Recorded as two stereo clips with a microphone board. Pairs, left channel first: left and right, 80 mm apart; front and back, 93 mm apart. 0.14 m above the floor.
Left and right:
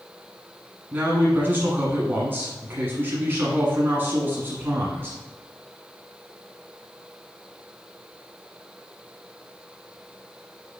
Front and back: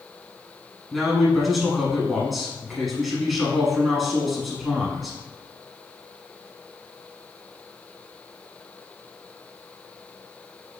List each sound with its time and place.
0.9 s a man speaking: 90° right, 1.1 m